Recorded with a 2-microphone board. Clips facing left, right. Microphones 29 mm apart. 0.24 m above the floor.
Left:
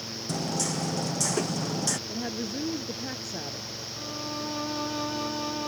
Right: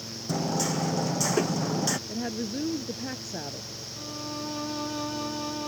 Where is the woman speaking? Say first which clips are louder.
Right 1 dB; 5° right (ahead or behind).